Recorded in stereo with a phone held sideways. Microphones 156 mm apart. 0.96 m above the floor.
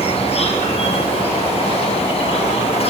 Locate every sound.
0.0 s an insect: 40° left (ahead or behind), 6 m